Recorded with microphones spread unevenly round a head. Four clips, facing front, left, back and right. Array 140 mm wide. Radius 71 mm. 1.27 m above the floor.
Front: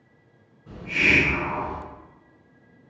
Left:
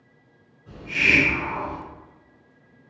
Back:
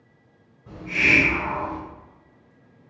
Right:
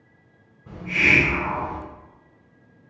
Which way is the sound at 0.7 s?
125° right.